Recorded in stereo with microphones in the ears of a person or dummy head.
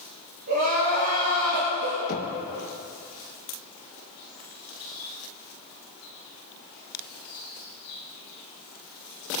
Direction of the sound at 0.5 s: 50° right (ahead or behind).